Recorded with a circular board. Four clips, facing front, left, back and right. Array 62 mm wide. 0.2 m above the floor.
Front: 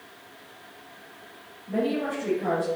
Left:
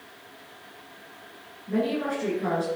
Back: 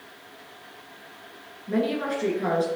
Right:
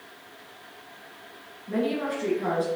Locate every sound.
1.7 s a woman speaking: 170° right, 3 m